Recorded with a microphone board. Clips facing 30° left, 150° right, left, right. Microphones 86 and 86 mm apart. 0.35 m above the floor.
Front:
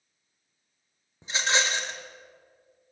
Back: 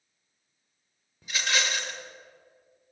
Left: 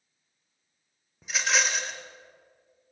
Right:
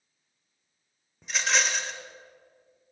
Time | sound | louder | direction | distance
1.2 | a rattle | front 2 dB, even | 5° left | 0.9 m